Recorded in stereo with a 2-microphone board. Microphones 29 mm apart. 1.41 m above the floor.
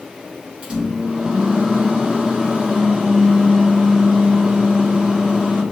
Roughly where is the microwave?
Right.